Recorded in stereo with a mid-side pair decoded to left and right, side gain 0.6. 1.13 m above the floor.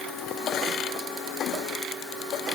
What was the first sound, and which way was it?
Only background noise.